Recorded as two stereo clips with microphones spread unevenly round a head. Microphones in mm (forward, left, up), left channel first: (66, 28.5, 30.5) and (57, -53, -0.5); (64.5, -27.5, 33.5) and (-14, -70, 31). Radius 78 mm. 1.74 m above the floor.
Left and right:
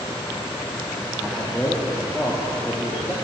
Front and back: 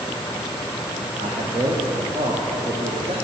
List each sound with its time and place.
1.2 s a man speaking: 165° left, 0.7 m